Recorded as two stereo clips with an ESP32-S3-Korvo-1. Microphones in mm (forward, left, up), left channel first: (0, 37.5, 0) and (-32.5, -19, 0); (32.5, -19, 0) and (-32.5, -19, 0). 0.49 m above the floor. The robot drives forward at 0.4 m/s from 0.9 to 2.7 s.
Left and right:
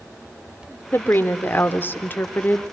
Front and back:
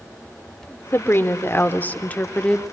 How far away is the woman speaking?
About 1.6 m.